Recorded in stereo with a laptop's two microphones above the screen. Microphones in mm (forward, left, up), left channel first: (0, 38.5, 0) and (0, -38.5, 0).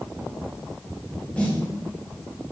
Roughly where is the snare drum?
Centre.